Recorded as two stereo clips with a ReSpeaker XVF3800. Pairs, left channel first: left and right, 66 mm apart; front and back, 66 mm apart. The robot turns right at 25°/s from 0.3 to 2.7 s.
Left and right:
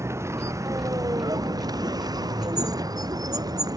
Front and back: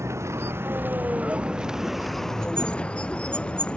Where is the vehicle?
135° right; by 3.8 s 75° right.